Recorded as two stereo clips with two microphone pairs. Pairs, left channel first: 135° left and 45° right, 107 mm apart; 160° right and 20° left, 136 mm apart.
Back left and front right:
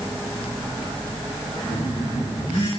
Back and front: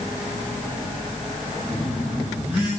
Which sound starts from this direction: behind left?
A phone buzzing, at 1.7 s.